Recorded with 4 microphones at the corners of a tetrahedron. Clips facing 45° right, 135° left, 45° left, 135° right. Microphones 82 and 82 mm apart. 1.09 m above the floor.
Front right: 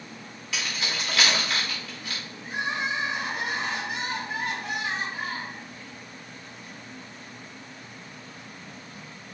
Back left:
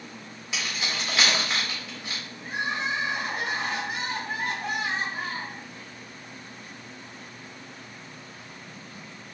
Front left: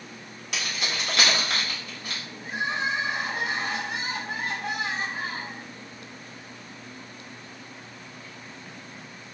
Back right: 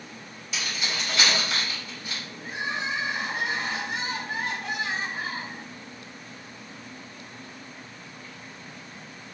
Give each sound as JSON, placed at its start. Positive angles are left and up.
{"t": 0.5, "sound": "keys jangling", "azimuth_deg": 65, "distance_m": 1.9}
{"t": 2.4, "sound": "crying", "azimuth_deg": 95, "distance_m": 1.4}